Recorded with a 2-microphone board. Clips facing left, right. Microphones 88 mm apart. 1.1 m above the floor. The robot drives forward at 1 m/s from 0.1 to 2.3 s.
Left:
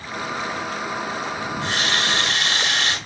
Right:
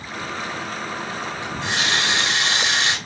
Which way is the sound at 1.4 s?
20° right (ahead or behind).